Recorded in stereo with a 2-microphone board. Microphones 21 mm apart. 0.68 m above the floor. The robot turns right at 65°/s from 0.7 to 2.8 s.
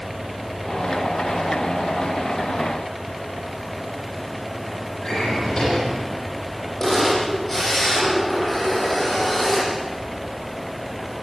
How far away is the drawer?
About 9 m.